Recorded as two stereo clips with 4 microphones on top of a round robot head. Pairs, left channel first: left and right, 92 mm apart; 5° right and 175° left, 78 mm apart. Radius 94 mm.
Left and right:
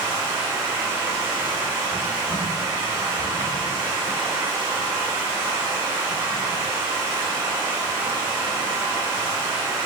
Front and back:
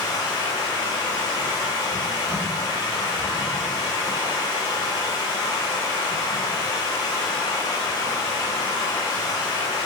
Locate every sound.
0.0 s running water: 25° right, 1.6 m